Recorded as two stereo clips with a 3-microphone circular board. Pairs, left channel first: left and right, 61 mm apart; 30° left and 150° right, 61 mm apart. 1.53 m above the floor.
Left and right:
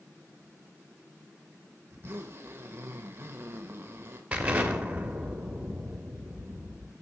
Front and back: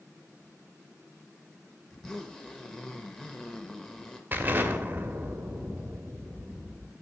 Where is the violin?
No violin in this recording.